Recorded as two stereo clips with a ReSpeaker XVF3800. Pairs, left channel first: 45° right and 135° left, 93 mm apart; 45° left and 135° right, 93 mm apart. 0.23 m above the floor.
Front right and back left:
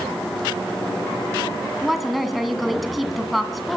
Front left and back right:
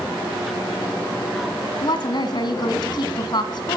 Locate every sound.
1.8 s a woman speaking: 45° left, 2 m